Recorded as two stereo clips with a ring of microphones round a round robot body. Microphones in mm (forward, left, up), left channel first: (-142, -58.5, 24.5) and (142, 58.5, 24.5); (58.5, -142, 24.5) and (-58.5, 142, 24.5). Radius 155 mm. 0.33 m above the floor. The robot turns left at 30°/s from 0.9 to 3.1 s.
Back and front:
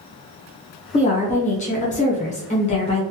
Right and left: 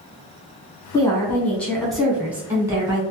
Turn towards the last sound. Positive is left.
turn(degrees=165)